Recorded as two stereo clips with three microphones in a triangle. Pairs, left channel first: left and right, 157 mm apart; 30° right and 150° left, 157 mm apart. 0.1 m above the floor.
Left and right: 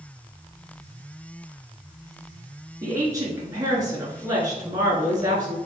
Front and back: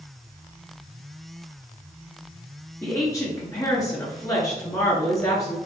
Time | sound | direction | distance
2.8 | a woman speaking | 65° right | 1.1 m